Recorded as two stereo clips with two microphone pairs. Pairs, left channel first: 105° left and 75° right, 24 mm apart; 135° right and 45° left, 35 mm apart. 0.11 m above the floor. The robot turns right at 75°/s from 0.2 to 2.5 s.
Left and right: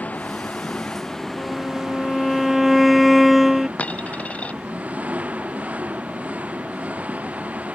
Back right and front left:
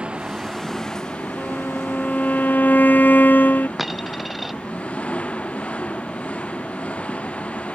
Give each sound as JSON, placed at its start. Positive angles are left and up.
{"t": 0.0, "sound": "an engine running", "azimuth_deg": 105}
{"t": 1.4, "sound": "a violin", "azimuth_deg": 115}
{"t": 3.8, "sound": "a dropped coin", "azimuth_deg": 130}